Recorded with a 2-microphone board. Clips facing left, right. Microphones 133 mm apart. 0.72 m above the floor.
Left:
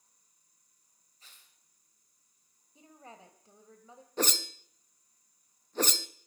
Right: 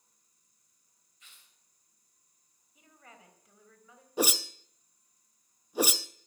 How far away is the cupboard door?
I don't hear a cupboard door.